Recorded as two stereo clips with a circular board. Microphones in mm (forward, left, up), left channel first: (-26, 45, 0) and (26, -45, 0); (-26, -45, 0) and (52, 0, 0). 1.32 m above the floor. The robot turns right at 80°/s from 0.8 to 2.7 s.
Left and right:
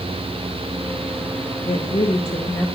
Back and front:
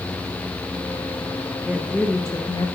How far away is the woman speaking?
About 1.7 m.